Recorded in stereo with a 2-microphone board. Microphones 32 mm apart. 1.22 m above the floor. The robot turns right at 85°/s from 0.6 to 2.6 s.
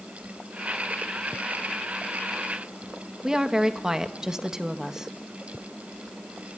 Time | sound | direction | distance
3.2 | a woman speaking | 15° right (ahead or behind) | 1.9 m